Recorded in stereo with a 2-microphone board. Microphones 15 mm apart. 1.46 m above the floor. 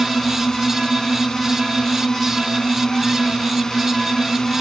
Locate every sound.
0.0 s a drone: 35° left (ahead or behind)